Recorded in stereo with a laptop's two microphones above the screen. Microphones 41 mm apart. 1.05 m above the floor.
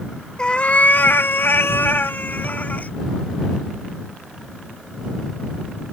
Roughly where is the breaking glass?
No breaking glass in this recording.